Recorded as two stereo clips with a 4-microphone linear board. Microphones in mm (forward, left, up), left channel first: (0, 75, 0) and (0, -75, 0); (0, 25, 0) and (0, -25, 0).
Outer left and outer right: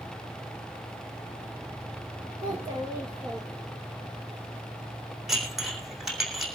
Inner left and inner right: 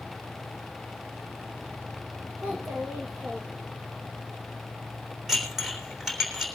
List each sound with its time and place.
2.4 s a child speaking: 35° right (ahead or behind), 6 m
5.3 s dishes clattering: centre (ahead or behind), 3.5 m